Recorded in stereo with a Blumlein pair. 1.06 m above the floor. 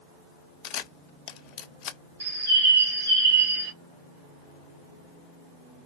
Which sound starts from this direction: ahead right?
A bird, at 2.2 s.